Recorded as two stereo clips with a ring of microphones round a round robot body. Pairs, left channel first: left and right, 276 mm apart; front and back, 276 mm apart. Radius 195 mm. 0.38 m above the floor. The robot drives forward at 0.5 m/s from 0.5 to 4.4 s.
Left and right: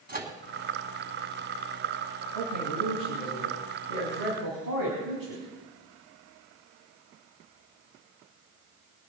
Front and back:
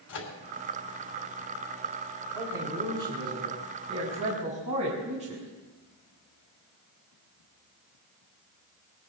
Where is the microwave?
35° right, 3 m.